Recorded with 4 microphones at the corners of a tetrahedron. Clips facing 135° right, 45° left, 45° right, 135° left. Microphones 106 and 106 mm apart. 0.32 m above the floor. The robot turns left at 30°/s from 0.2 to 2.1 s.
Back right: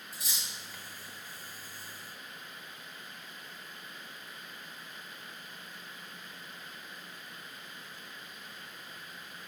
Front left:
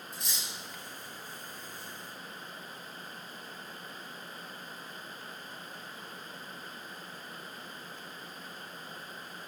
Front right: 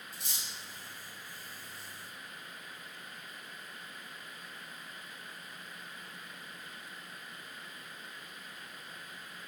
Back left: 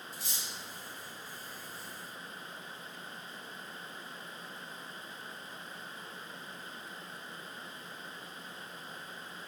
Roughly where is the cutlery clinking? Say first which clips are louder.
Even, back left 2 dB; ahead right.